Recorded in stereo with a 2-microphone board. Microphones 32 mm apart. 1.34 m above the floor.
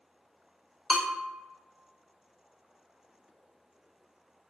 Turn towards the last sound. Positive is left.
turn(degrees=-30)  # may be behind; listen again after turning